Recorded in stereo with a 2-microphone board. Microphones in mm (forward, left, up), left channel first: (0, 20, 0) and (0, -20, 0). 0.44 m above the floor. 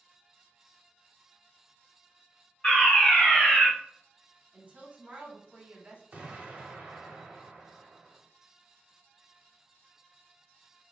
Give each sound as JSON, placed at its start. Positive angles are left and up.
{"t": 2.6, "sound": "a fire alarm", "side_deg": 25, "distance_m": 2.0}
{"t": 4.5, "sound": "a woman speaking", "side_deg": -35, "distance_m": 0.9}
{"t": 6.1, "sound": "an explosion", "side_deg": -40, "distance_m": 0.8}